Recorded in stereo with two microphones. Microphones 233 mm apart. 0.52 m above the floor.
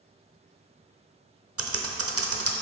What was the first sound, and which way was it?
Typing on a keyboard, 75° right (ahead or behind).